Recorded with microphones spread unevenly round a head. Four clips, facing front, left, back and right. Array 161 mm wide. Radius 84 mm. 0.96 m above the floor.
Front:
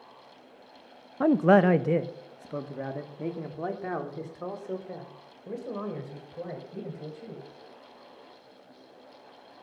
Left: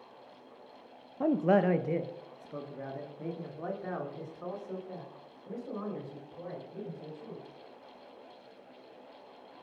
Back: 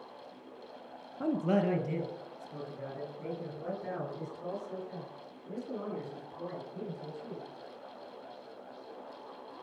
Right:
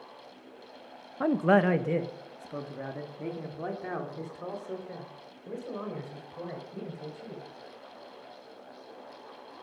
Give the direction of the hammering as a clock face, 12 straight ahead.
No hammering in this recording.